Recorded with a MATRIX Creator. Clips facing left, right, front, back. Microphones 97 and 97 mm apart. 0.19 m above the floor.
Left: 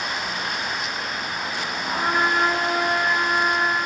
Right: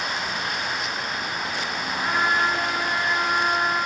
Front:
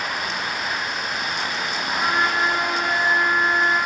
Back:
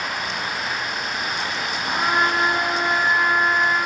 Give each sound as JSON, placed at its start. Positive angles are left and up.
{"t": 1.8, "sound": "a trumpet", "azimuth_deg": 115, "distance_m": 2.0}